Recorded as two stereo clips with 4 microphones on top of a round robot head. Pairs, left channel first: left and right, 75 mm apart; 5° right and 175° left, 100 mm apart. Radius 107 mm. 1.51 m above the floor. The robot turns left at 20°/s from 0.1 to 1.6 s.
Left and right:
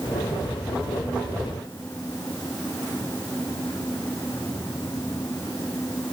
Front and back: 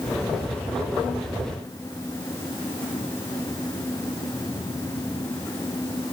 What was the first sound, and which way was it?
Only background noise.